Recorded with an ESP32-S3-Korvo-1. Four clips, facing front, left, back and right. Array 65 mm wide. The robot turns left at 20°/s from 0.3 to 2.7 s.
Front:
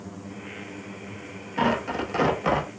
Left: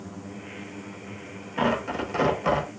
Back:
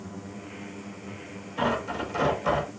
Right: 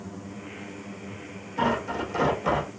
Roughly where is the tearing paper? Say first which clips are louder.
Left 1 dB, front 3 dB; ahead left.